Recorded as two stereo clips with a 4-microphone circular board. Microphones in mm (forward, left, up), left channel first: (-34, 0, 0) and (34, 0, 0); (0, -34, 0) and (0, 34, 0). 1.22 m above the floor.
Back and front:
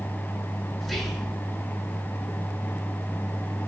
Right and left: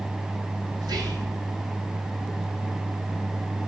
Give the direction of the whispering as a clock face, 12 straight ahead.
9 o'clock.